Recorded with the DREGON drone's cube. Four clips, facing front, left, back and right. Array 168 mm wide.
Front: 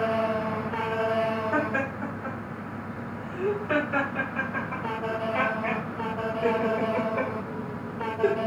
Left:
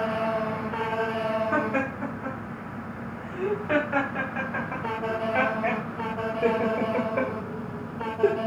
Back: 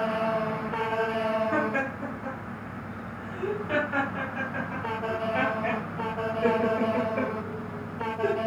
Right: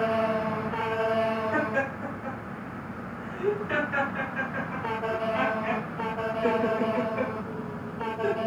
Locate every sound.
1.5 s laughter: 100° left, 6 m; by 8.4 s 70° left, 2.0 m